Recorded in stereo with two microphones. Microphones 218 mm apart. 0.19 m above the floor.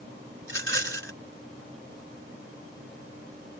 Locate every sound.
0.4 s a rattle: 60° right (ahead or behind)